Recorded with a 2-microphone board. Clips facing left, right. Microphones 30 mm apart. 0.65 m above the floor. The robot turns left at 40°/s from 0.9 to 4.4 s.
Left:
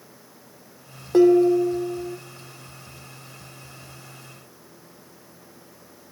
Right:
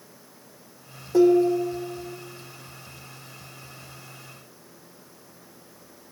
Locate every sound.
1.1 s dishes clattering: 125° left, 1.2 m; by 2.2 s 85° left, 1.2 m